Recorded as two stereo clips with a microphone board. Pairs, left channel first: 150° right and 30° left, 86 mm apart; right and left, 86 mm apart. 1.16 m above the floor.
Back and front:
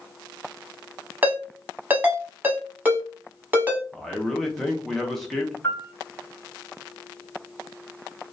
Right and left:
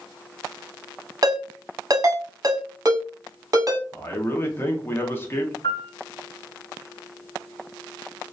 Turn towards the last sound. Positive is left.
turn(degrees=-90)